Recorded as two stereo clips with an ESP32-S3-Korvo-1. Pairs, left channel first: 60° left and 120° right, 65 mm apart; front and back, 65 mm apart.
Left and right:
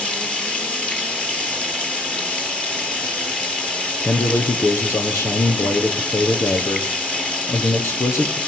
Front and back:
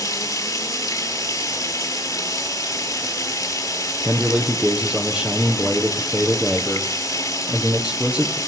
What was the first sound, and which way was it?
Running water, 15° right.